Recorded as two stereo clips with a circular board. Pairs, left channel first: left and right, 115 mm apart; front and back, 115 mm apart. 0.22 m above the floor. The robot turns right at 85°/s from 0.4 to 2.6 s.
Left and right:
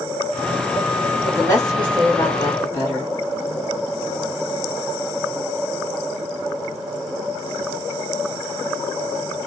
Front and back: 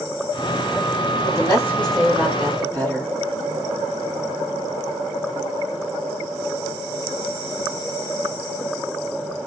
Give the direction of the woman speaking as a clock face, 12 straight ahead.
11 o'clock.